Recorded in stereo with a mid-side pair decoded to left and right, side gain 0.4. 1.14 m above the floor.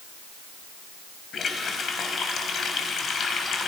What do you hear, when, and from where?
1.3 s a running tap: 55° left, 5 m